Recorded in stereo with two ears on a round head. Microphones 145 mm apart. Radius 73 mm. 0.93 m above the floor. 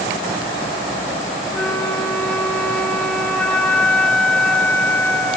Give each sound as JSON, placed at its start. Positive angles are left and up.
{"t": 1.5, "sound": "a flute", "side_deg": 10, "distance_m": 0.8}